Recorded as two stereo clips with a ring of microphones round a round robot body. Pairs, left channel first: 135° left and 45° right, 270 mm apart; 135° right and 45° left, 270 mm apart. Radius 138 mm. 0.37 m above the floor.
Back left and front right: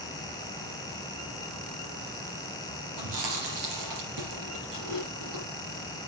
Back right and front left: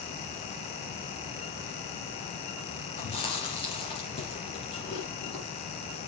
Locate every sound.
3.0 s chewing: 65° right, 3.5 m